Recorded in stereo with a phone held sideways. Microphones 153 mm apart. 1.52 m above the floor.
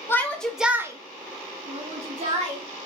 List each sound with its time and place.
0.1 s a shout: 15° left (ahead or behind), 0.6 m; by 2.9 s 50° right (ahead or behind), 1.2 m